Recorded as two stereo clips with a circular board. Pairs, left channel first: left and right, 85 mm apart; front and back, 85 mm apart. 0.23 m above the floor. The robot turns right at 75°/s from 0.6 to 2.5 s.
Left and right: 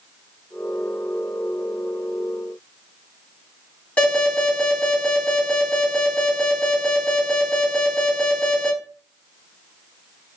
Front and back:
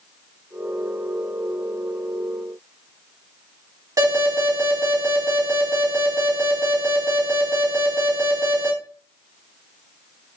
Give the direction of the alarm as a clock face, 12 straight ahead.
7 o'clock.